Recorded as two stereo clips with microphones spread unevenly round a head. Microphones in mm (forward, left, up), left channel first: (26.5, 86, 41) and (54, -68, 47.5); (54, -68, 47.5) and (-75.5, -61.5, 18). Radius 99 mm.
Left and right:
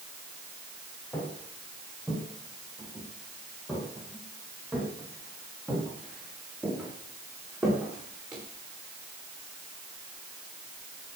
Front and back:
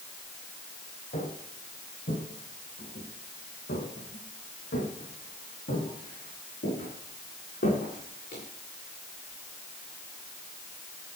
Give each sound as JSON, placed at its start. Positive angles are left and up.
{"t": 1.1, "sound": "footsteps", "azimuth_deg": 25, "distance_m": 7.0}